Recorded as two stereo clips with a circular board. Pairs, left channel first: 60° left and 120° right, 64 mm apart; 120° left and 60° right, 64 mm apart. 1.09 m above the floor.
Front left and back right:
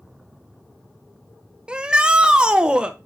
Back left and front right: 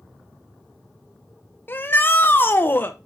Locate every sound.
1.7 s a shout: 170° left, 1.2 m